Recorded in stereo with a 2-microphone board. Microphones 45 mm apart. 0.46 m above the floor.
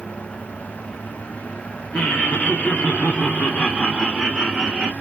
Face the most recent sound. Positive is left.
turn(degrees=5)  # may be behind; listen again after turning